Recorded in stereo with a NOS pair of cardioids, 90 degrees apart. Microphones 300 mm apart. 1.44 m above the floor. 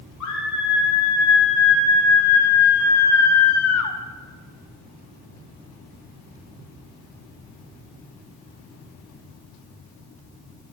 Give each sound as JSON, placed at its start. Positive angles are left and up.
{"t": 0.2, "sound": "a scream", "azimuth_deg": 65, "distance_m": 3.0}